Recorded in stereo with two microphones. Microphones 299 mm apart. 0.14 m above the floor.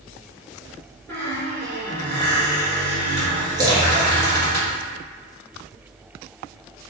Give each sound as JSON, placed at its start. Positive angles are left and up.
{"t": 1.1, "sound": "a squeak", "side_deg": 10, "distance_m": 1.6}
{"t": 3.6, "sound": "a splash", "side_deg": -15, "distance_m": 1.0}